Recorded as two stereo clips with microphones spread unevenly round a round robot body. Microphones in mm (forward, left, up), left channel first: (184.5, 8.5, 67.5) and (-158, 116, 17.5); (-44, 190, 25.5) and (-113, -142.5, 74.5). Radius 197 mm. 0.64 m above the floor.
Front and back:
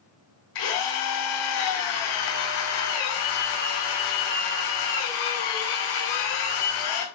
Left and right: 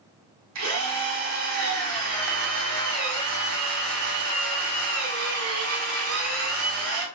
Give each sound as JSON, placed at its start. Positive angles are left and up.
{"t": 0.6, "sound": "a drill", "azimuth_deg": -50, "distance_m": 4.5}